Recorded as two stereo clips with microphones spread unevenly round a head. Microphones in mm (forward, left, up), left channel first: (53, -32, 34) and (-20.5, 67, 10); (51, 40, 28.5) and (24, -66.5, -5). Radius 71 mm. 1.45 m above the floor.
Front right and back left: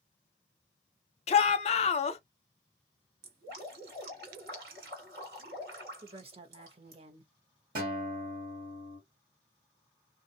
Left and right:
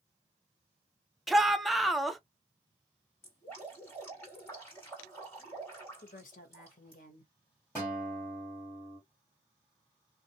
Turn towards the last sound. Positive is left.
turn(degrees=130)